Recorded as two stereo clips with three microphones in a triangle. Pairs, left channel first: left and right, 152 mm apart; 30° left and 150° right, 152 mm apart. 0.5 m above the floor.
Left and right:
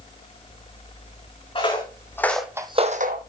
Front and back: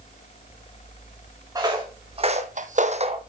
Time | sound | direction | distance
1.6 | footsteps | 145° left | 2.0 m